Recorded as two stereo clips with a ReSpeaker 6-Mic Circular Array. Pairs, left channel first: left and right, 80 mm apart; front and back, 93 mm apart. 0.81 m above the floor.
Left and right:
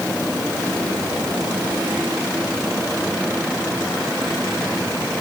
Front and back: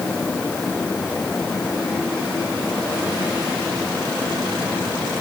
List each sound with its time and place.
Only background noise.